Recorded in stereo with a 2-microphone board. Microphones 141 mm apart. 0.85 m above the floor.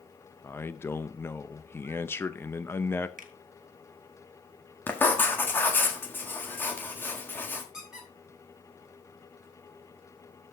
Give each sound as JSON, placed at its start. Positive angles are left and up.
{"t": 0.4, "sound": "a man speaking", "side_deg": 15, "distance_m": 0.6}
{"t": 3.2, "sound": "a finger snap", "side_deg": -75, "distance_m": 1.3}
{"t": 4.9, "sound": "writing", "side_deg": 15, "distance_m": 1.5}
{"t": 7.7, "sound": "a squeak", "side_deg": -5, "distance_m": 3.0}